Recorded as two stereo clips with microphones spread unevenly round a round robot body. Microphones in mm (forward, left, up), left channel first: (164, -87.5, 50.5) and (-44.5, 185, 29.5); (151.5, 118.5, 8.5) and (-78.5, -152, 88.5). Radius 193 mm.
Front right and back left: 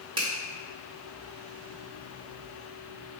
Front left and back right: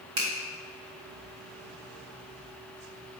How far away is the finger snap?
About 1.1 m.